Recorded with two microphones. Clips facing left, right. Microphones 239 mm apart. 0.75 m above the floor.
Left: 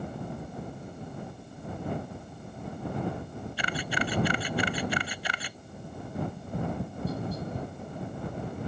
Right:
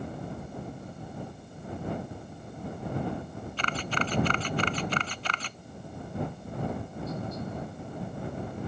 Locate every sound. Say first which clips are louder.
3.6 s a camera shutter: even; 10° left (ahead or behind)
6.1 s tapping: left 1 dB; 35° left (ahead or behind)